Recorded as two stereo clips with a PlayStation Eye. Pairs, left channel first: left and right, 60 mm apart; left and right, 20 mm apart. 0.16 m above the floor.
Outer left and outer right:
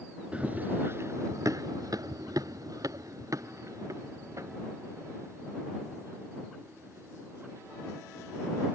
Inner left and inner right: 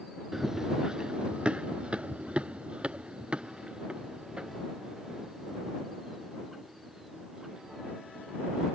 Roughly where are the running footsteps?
Centre.